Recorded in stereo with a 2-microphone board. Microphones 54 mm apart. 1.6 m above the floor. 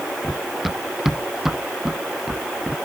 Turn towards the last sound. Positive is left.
turn(degrees=-10)  # may be behind; listen again after turning